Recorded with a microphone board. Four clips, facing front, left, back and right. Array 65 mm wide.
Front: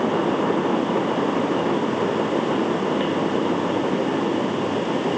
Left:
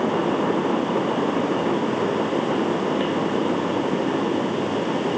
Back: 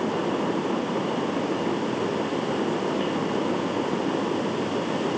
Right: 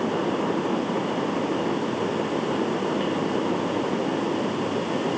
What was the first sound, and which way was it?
Only background noise.